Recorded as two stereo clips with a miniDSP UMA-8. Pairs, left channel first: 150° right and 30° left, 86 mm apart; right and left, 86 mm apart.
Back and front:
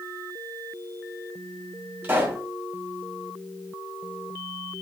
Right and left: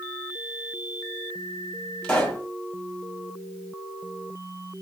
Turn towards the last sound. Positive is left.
turn(degrees=-25)